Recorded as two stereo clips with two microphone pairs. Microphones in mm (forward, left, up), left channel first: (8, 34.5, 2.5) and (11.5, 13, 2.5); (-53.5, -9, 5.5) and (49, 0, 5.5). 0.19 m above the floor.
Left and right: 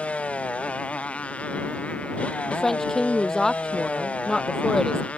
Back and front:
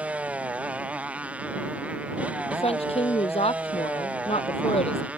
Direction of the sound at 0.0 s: 80° left.